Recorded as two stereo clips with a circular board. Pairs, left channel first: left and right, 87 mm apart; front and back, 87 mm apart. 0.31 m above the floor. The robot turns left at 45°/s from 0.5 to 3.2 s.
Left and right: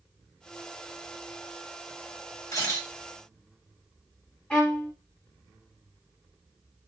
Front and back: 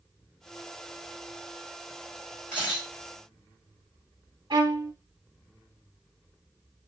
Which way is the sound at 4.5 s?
165° left.